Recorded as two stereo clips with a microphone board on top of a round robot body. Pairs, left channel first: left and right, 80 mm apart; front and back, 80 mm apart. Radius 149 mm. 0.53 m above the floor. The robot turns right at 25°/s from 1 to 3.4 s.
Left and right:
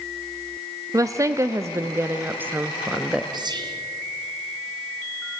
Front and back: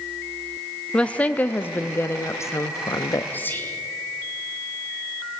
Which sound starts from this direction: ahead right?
Whispering, at 3.3 s.